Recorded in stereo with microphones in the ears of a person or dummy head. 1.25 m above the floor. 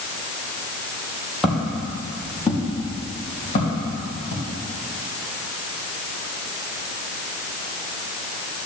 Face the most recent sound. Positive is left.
turn(degrees=55)  # may be behind; listen again after turning